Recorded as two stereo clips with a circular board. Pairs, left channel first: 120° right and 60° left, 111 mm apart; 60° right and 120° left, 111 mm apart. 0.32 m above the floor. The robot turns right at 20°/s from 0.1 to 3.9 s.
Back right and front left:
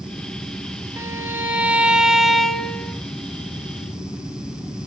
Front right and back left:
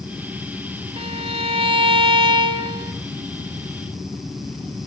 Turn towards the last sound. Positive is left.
turn(degrees=180)